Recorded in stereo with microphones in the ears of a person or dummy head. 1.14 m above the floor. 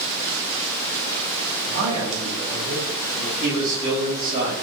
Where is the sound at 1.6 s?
75° right (ahead or behind), 2 m; by 3.3 s 85° right, 4.5 m.